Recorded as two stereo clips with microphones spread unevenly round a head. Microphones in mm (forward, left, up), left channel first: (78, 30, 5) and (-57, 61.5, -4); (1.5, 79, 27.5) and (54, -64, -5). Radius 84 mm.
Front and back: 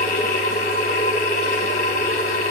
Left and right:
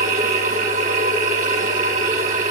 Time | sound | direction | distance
0.0 | a machine running | 30° right | 3 m